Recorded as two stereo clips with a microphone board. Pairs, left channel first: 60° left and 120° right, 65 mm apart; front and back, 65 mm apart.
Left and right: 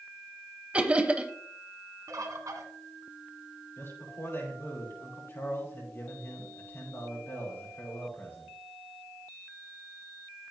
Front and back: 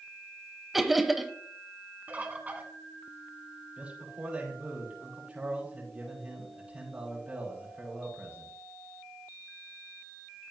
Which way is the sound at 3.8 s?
110° left.